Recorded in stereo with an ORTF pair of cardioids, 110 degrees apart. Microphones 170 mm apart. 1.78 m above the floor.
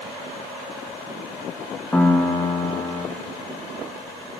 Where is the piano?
10° left, 1.0 m.